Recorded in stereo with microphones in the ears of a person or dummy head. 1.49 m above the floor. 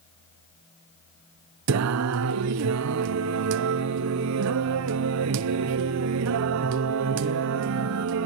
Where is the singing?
70° right (ahead or behind), 0.5 m.